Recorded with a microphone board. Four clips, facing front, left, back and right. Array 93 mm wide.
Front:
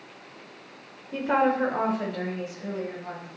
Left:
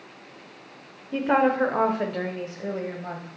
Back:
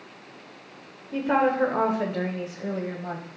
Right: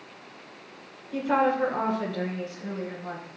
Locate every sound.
1.1 s a woman speaking: 85° left, 1.1 m; by 3.3 s 130° left, 2.0 m